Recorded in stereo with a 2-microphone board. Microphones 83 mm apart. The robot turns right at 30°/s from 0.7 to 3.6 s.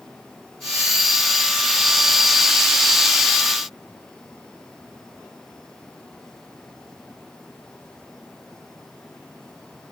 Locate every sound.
Only background noise.